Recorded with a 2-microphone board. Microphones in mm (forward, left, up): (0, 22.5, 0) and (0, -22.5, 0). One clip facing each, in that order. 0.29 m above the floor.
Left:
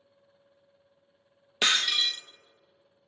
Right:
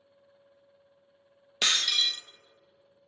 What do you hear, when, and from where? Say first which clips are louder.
1.6 s breaking glass: left 2 dB; 15° left (ahead or behind), 0.5 m